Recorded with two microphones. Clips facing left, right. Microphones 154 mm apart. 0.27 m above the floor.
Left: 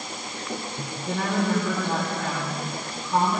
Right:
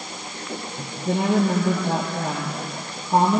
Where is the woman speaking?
40° right (ahead or behind), 7 m.